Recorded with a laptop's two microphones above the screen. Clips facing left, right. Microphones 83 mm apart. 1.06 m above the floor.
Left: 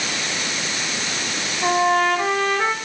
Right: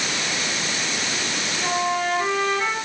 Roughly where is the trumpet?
Left.